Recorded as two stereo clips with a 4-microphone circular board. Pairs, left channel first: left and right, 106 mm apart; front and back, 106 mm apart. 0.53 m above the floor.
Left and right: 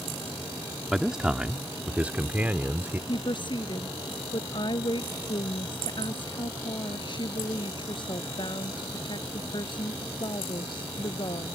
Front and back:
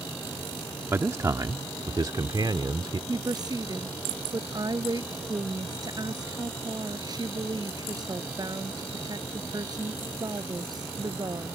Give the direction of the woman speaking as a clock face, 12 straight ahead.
8 o'clock.